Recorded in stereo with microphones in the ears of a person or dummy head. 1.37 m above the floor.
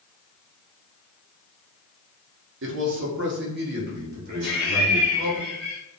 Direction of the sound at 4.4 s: 60° right (ahead or behind).